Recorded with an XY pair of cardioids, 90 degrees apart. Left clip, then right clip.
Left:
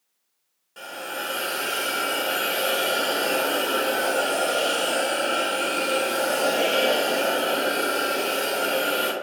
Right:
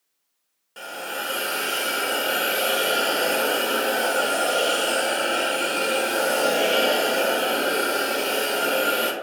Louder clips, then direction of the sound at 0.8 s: Right 1 dB; 35° right.